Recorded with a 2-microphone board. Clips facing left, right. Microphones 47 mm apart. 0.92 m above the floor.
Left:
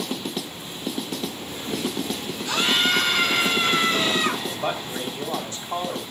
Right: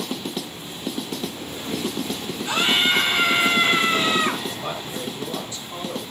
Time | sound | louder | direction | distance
2.5 | a scream | right 1 dB | 20° right (ahead or behind) | 5 m
4.5 | a man speaking | left 2 dB | 50° left (ahead or behind) | 3 m